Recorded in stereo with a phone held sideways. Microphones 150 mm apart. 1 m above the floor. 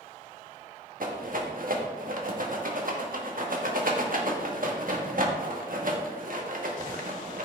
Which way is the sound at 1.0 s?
65° right (ahead or behind).